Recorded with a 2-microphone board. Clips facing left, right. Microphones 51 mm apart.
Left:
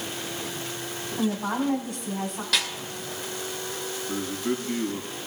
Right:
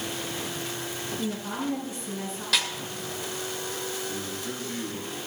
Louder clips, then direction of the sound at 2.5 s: Even; centre (ahead or behind).